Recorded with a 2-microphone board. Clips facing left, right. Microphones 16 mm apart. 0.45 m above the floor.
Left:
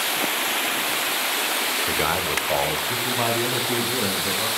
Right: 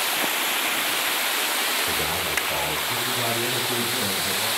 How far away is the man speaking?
About 0.8 m.